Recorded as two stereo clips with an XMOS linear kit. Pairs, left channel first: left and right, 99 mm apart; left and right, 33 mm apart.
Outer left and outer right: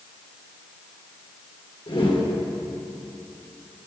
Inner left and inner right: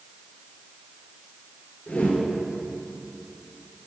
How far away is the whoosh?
About 2.5 m.